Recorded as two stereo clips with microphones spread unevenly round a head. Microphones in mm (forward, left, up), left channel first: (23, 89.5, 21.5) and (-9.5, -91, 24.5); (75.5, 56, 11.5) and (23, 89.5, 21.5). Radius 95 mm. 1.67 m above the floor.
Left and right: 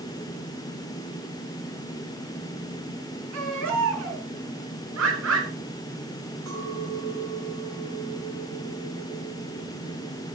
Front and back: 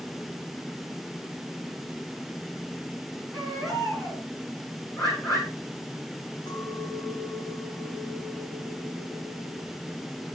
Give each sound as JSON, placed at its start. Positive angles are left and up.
{"t": 3.3, "sound": "a baby crying", "azimuth_deg": -120, "distance_m": 6.5}
{"t": 5.0, "sound": "a bird", "azimuth_deg": -110, "distance_m": 7.0}
{"t": 6.5, "sound": "a clink", "azimuth_deg": -85, "distance_m": 9.5}